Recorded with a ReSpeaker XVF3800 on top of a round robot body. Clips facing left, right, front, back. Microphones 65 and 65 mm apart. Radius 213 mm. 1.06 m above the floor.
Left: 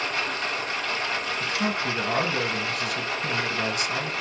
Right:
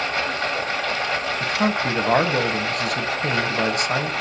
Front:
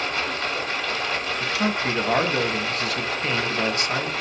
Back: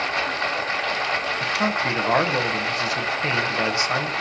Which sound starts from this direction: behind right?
Running water, at 0.0 s.